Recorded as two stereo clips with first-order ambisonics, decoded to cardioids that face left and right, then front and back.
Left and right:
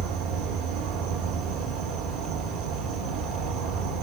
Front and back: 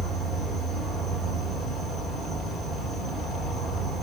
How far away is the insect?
About 1.4 m.